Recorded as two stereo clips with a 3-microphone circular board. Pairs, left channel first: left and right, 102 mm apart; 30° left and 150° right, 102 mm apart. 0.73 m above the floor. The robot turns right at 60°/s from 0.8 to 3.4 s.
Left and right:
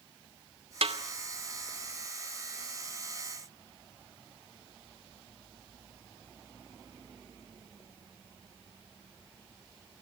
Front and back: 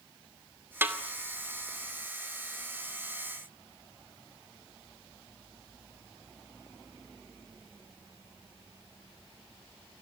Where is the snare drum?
80° right, 2.5 m; by 1.0 s 70° right, 2.5 m.